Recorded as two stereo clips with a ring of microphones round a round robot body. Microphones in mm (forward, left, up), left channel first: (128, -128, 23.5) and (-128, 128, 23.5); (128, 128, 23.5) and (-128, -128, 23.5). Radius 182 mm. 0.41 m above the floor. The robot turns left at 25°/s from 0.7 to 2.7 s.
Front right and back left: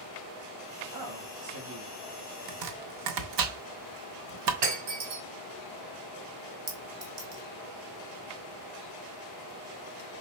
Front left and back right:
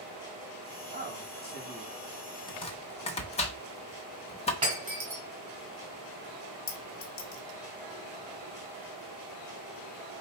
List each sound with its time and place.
0.9 s a man speaking: straight behind, 3.5 m; by 1.9 s 155° left, 3.5 m
2.5 s chopping: 120° left, 0.7 m; by 4.5 s 115° left, 0.7 m
4.6 s breaking glass: 150° left, 2 m
6.7 s a clink: 90° left, 1.2 m